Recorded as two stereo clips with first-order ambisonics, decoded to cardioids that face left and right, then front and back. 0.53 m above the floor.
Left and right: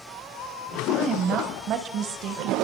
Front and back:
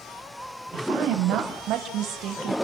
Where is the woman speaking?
150° right, 3.5 m; by 2.5 s 125° right, 3 m.